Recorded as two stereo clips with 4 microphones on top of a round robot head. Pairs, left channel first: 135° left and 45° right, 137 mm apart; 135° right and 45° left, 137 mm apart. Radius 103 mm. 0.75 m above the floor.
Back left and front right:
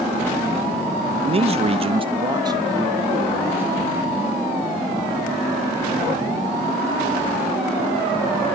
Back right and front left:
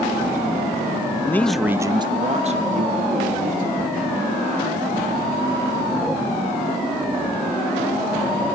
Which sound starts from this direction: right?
A man speaking, at 1.2 s.